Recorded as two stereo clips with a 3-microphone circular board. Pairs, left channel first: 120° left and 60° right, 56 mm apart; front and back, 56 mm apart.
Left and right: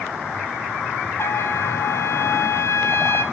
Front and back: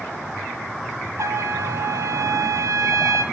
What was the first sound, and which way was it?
A trumpet, 155° left.